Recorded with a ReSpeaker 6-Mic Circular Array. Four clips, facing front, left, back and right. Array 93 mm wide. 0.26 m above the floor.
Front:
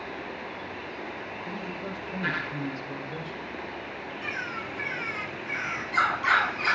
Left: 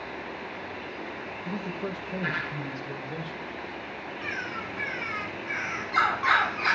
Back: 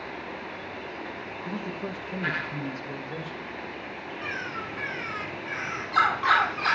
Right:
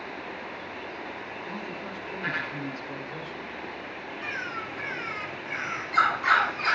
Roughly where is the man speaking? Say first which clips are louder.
Left 6 dB, back 4 dB; behind left.